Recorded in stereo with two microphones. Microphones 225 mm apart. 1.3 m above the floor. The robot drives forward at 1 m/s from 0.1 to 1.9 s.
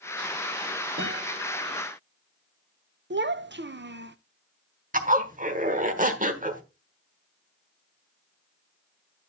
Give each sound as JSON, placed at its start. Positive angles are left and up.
{"t": 1.0, "sound": "a guitar", "side_deg": -55, "distance_m": 4.0}
{"t": 3.1, "sound": "a child speaking", "side_deg": -55, "distance_m": 0.6}
{"t": 4.9, "sound": "a zipper", "side_deg": -35, "distance_m": 1.2}